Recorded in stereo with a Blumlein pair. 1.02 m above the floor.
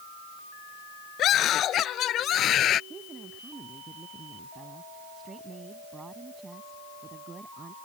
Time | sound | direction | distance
1.2 | a scream | 30° left | ?
2.9 | a woman speaking | 15° right | ?